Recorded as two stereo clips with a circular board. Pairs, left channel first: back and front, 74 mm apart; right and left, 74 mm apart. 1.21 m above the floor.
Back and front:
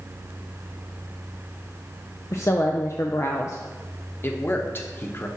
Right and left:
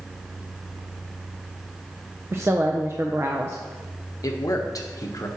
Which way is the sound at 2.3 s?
140° left.